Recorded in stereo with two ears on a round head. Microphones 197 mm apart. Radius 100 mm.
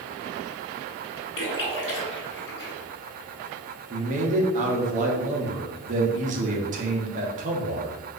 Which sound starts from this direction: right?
A man speaking, at 3.9 s.